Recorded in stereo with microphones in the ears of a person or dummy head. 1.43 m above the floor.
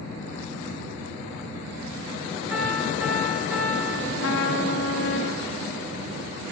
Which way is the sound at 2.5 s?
5° right (ahead or behind).